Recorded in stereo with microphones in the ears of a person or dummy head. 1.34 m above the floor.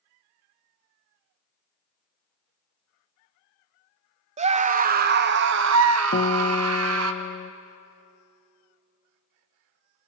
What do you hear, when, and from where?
4.4 s a scream: 30° right (ahead or behind), 1.3 m; by 7.1 s 85° right, 1.8 m
6.1 s a guitar: 45° left (ahead or behind), 0.9 m